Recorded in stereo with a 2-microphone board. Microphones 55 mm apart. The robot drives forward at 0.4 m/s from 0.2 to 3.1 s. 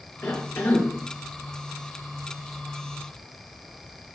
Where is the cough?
45° left (ahead or behind), 2.5 m; by 0.9 s 50° left (ahead or behind), 2 m.